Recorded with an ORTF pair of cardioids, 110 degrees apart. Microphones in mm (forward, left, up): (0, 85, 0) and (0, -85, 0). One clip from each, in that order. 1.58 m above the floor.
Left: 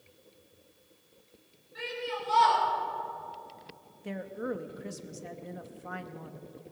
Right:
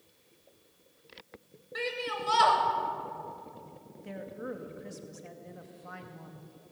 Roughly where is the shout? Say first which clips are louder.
Right 2 dB; right.